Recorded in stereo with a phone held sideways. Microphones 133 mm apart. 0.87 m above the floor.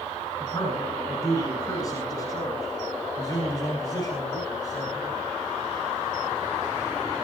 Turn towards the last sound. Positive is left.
turn(degrees=30)  # may be behind; listen again after turning